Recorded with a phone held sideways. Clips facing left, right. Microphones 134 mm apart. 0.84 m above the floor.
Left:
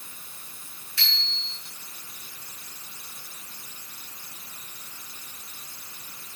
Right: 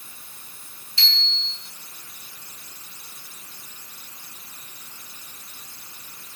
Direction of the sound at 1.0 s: 25° right (ahead or behind).